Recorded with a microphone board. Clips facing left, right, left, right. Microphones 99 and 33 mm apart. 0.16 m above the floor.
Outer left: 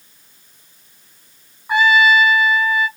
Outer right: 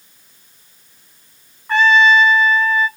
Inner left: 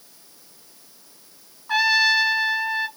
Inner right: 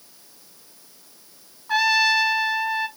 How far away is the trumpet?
About 0.6 m.